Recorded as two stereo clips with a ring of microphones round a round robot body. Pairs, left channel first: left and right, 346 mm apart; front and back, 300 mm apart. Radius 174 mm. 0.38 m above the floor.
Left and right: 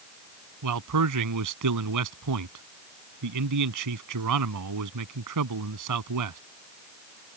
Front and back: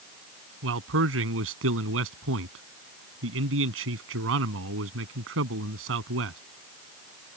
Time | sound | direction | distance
0.6 | a man speaking | 125° right | ?